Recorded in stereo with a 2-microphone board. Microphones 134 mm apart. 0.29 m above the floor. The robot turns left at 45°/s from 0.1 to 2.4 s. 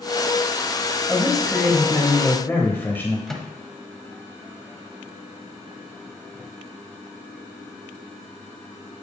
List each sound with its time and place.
1.1 s a man speaking: 5° right (ahead or behind), 1.1 m; by 3.2 s 15° left (ahead or behind), 1.1 m
3.3 s a microwave: 5° left (ahead or behind), 1.0 m